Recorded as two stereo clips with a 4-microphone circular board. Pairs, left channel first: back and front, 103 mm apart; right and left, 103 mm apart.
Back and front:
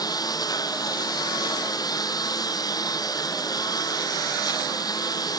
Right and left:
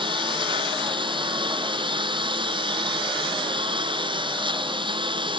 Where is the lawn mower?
125° left.